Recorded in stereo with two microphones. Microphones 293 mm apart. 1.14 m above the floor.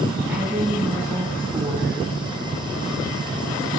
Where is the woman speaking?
5° right (ahead or behind), 8.5 m.